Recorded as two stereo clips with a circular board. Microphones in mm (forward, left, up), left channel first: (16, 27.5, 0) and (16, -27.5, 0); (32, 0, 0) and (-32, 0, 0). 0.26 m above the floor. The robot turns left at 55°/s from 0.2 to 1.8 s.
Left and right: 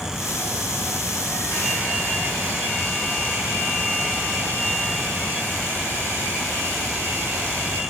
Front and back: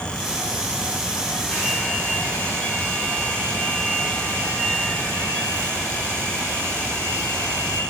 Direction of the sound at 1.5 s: 55° left.